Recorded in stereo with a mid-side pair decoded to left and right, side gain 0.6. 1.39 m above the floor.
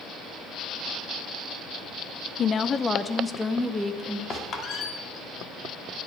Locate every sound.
2.4 s a woman speaking: 45° left, 0.6 m; by 4.2 s 5° left, 2 m
4.3 s a squeak: 40° left, 2 m